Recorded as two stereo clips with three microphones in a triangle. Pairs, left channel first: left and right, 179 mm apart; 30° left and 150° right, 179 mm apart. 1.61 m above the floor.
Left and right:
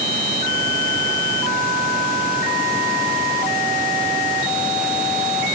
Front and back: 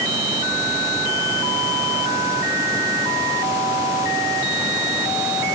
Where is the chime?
No chime in this recording.